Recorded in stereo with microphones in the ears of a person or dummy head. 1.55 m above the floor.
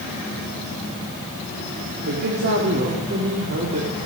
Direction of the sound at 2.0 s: 55° right (ahead or behind).